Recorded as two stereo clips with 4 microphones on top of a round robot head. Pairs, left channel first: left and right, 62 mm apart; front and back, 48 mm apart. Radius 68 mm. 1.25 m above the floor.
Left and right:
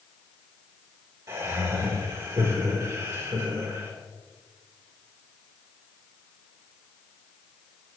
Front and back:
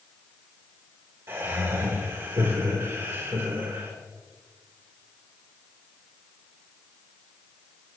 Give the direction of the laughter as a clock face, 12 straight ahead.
5 o'clock.